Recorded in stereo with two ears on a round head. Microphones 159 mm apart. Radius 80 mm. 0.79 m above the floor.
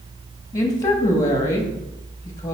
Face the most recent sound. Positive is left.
turn(degrees=20)  # may be behind; listen again after turning